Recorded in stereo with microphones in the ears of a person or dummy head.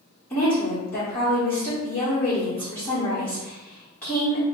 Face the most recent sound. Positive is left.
turn(degrees=5)  # may be behind; listen again after turning